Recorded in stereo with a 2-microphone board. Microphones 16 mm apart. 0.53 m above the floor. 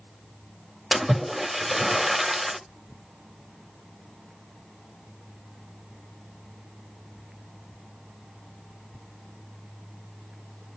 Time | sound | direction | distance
0.9 | a splash | 5° right (ahead or behind) | 1.4 m